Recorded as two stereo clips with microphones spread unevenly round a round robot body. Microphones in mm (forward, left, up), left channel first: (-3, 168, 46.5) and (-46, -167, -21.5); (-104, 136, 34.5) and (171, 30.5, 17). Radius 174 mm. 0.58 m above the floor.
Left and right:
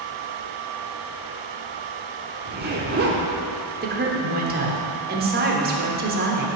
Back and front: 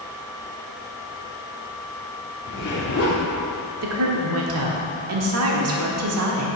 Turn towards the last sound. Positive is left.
turn(degrees=-45)